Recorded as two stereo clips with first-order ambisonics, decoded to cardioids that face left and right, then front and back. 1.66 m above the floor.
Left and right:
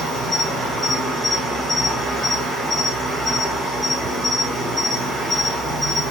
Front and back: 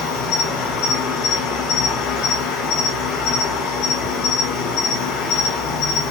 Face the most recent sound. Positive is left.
turn(degrees=0)